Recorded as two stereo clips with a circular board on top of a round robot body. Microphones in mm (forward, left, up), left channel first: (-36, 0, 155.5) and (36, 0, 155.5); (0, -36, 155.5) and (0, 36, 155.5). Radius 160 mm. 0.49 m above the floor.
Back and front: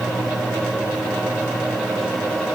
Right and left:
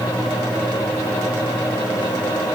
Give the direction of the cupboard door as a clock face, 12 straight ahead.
I don't hear a cupboard door.